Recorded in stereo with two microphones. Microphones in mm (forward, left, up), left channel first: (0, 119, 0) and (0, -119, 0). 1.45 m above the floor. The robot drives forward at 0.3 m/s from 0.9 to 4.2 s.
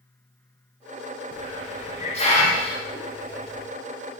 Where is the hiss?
30° left (ahead or behind), 0.7 m; by 3.7 s 20° left (ahead or behind), 1.0 m.